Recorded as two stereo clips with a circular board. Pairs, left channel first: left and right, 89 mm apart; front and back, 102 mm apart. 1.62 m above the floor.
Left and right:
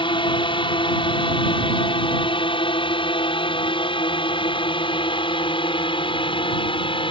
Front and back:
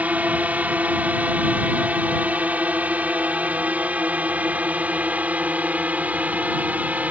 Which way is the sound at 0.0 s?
105° left.